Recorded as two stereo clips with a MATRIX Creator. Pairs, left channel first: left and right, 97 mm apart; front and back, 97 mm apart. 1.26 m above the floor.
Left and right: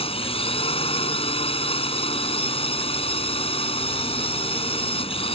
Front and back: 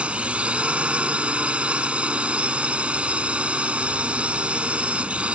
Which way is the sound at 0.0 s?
105° left.